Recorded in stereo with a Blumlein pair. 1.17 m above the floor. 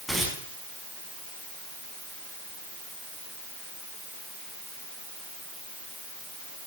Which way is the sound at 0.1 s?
5° left.